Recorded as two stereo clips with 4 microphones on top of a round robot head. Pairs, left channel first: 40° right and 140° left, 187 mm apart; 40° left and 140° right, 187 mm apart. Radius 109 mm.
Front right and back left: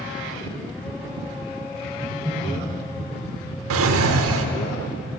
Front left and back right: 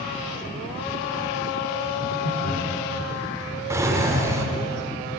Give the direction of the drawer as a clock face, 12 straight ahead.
7 o'clock.